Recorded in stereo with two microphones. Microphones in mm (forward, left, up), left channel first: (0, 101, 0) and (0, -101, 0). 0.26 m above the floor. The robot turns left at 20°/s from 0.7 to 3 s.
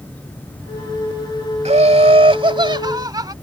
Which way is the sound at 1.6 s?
35° right (ahead or behind).